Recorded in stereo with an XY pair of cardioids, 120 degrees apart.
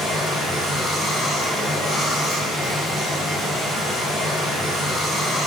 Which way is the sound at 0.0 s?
55° left.